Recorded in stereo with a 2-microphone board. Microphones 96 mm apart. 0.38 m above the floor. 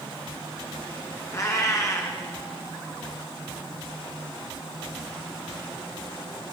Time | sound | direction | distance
1.3 | a cat meowing | 35° left (ahead or behind) | 1.6 m